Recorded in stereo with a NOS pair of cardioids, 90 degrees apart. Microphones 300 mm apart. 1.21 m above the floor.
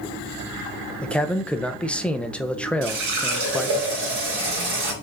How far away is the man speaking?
About 0.5 m.